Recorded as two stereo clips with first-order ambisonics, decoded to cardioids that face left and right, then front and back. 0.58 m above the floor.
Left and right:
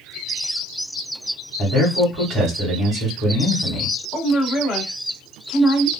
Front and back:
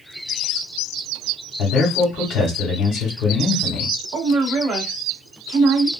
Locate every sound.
1.6 s a man speaking: 30° right, 1.6 m
4.1 s a woman speaking: 160° left, 1.4 m